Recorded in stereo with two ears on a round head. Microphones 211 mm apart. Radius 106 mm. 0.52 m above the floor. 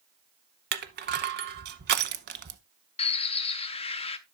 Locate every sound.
0.7 s crushing: 40° right (ahead or behind), 0.8 m
3.0 s a bird: 25° left (ahead or behind), 0.7 m